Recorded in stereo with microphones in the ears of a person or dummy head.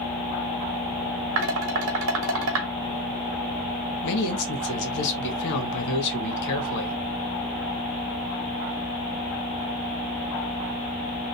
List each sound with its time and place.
1.4 s dishes clattering: 70° right (ahead or behind), 1.5 m
4.0 s a man speaking: 60° left (ahead or behind), 2 m